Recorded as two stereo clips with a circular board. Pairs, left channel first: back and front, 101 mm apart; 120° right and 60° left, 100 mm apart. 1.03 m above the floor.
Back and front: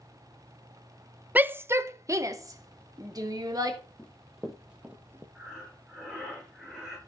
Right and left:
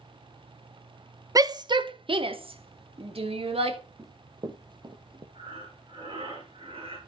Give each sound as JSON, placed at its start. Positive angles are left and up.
{"t": 1.4, "sound": "a shout", "azimuth_deg": 65, "distance_m": 0.7}
{"t": 4.0, "sound": "running footsteps", "azimuth_deg": 105, "distance_m": 1.7}
{"t": 5.3, "sound": "breathing", "azimuth_deg": 85, "distance_m": 6.0}